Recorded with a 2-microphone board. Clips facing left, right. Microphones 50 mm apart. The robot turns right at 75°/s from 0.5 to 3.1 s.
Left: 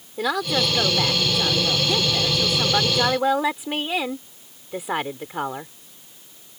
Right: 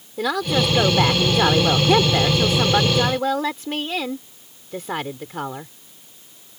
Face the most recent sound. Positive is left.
turn(degrees=15)